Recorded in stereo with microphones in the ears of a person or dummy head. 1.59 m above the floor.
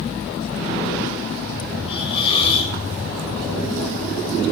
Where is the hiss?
30° left (ahead or behind), 5 m.